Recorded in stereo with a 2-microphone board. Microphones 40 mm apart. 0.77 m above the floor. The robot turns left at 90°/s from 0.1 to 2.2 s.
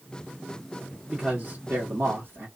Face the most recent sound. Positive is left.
turn(degrees=-120)